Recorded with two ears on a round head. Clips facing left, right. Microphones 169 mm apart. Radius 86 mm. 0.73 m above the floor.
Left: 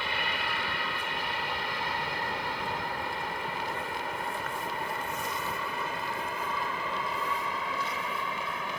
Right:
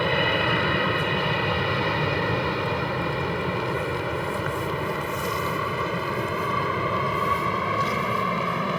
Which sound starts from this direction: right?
An aircraft, at 0.0 s.